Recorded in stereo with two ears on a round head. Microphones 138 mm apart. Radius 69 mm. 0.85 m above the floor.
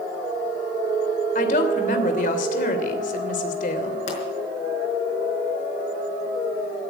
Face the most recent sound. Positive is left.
turn(degrees=50)  # may be behind; listen again after turning